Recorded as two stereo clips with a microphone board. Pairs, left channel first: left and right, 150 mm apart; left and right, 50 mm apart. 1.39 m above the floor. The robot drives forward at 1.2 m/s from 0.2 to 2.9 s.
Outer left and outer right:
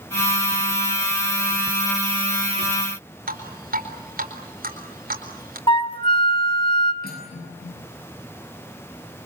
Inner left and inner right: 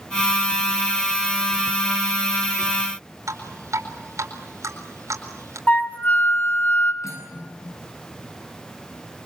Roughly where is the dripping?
Right.